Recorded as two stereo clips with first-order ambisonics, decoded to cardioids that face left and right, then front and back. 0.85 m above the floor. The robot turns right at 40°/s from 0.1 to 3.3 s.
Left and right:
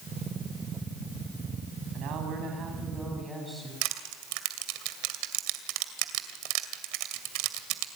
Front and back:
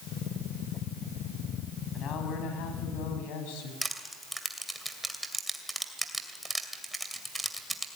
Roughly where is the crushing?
Right.